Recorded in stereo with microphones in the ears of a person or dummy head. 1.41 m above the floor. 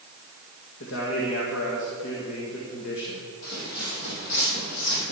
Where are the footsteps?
50° left (ahead or behind), 3 m; by 5.1 s 70° left (ahead or behind), 3.5 m.